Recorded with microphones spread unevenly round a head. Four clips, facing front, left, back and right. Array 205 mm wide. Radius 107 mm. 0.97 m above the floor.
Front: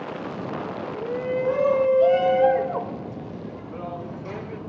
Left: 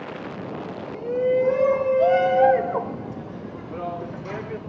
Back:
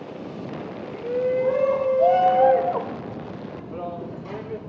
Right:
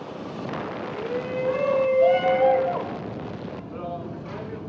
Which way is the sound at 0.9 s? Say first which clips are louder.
Left 9 dB, back 4 dB; 165° left.